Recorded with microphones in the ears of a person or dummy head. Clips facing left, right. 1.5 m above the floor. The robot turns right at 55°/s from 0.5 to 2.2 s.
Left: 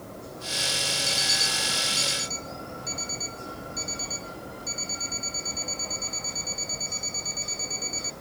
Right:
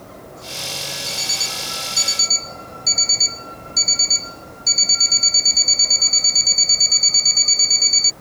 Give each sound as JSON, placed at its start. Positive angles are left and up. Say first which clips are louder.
{"t": 1.1, "sound": "an alarm clock", "louder": "right 1 dB", "azimuth_deg": -165}